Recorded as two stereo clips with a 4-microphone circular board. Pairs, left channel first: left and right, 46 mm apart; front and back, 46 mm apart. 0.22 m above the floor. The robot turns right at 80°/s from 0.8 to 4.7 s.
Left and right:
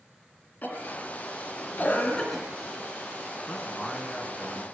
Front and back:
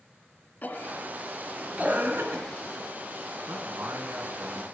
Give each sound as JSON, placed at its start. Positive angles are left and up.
{"t": 0.6, "sound": "a cough", "azimuth_deg": 45, "distance_m": 2.5}
{"t": 3.5, "sound": "a man speaking", "azimuth_deg": 155, "distance_m": 2.5}